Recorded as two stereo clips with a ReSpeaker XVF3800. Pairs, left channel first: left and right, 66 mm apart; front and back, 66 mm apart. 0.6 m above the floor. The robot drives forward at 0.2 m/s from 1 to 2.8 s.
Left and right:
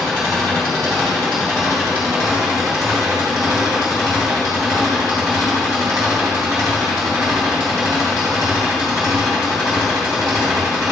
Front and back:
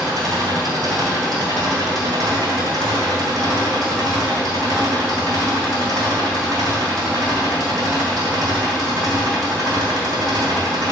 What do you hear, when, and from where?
0.0 s an engine running: 175° left, 2.5 m